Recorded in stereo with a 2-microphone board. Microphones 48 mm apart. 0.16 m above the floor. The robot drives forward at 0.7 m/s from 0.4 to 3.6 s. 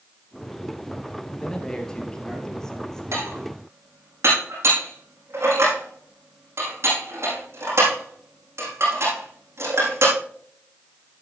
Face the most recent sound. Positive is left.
turn(degrees=-65)  # may be behind; listen again after turning